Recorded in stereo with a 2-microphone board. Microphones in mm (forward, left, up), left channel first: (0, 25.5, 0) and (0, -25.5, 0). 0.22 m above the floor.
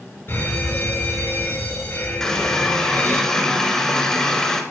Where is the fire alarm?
55° left (ahead or behind), 4 m.